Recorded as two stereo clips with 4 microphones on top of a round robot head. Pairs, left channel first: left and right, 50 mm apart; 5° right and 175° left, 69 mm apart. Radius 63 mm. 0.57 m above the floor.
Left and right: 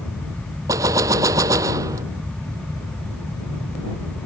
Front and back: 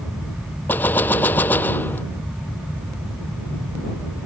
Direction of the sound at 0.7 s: 70° right.